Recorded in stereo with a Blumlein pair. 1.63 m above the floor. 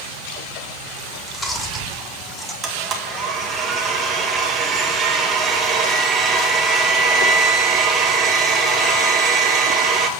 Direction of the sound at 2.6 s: 25° right.